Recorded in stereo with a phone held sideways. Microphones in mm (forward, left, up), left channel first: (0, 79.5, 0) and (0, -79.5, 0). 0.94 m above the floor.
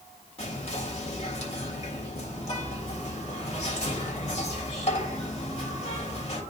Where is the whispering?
45° left (ahead or behind), 1.8 m.